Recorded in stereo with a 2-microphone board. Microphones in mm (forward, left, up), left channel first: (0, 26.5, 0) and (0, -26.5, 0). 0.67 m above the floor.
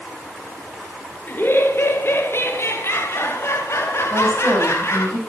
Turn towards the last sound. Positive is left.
turn(degrees=-75)  # may be behind; listen again after turning